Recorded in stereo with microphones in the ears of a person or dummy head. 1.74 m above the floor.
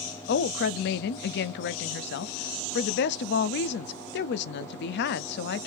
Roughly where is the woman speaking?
Left.